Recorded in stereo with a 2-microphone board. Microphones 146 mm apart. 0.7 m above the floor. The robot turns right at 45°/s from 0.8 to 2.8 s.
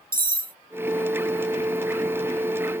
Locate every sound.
0.1 s cutlery clinking: 80° right, 0.5 m